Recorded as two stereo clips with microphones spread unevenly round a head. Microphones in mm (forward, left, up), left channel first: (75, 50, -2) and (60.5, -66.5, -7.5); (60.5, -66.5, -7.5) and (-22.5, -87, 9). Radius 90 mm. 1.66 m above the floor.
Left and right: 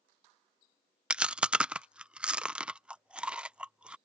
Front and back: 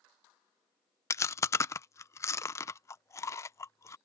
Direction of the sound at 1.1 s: 20° right.